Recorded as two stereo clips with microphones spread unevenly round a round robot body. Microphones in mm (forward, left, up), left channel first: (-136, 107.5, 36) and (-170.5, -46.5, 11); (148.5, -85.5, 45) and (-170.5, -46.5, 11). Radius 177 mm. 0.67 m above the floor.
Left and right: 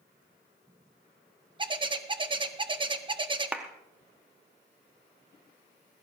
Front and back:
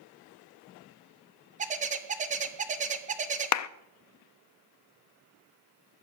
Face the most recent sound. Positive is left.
turn(degrees=-30)